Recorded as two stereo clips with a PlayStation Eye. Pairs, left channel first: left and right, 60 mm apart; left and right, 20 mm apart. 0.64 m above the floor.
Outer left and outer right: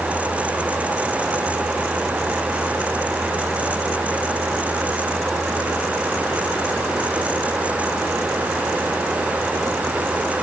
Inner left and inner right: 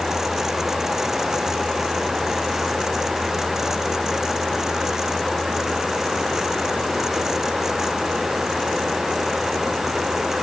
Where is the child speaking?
I don't hear a child speaking.